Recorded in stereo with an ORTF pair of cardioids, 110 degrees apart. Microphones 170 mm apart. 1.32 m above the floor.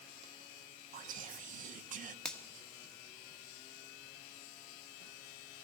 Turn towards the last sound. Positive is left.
turn(degrees=5)